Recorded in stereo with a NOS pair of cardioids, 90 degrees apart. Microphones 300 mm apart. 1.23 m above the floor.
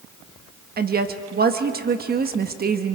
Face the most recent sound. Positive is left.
turn(degrees=-30)